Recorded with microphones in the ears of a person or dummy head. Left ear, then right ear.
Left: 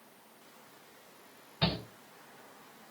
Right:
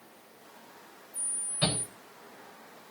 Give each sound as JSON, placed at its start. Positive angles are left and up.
{"t": 1.6, "sound": "a shout", "side_deg": 40, "distance_m": 5.5}